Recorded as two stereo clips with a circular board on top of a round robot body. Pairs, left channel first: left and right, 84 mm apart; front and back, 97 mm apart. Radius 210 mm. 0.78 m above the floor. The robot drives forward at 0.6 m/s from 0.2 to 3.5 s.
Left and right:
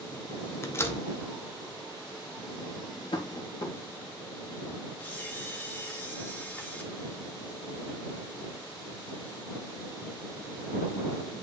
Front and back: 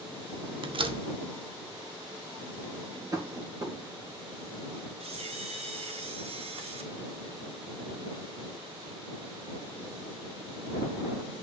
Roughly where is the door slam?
Behind left.